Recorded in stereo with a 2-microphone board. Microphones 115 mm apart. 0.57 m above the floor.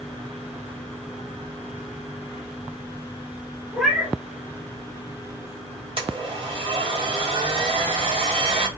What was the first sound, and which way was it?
A cat meowing, 5° right (ahead or behind).